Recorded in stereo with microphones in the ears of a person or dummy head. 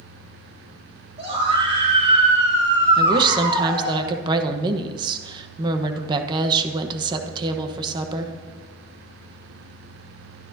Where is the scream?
30° right (ahead or behind), 6.5 m; by 4.0 s 20° right (ahead or behind), 8.5 m.